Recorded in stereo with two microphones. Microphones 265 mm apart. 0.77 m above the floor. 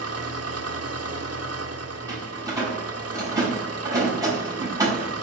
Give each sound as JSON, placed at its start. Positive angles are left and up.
{"t": 0.0, "sound": "an engine running", "side_deg": -70, "distance_m": 1.2}
{"t": 2.1, "sound": "a door slam", "side_deg": -15, "distance_m": 5.0}